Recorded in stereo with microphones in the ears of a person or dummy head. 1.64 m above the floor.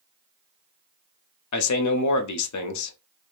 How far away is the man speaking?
About 0.6 m.